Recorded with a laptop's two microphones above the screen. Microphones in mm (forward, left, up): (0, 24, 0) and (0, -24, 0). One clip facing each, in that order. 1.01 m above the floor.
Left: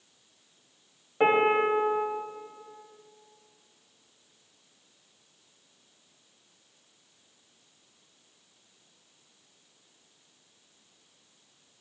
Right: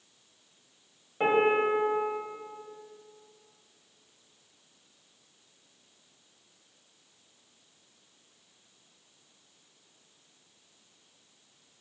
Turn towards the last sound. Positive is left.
turn(degrees=20)  # may be behind; listen again after turning